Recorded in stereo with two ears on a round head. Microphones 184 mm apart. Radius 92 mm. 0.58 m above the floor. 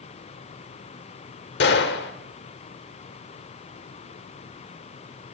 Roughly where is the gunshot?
Left.